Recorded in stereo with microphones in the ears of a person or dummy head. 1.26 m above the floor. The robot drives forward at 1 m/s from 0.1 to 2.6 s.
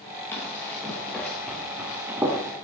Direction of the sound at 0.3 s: 10° left (ahead or behind).